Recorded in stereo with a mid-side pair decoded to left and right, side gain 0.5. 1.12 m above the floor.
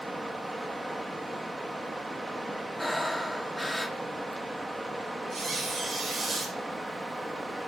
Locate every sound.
0.0 s running water: 15° right, 0.8 m
2.8 s breathing: straight ahead, 0.9 m
5.3 s a squeak: 35° right, 3.5 m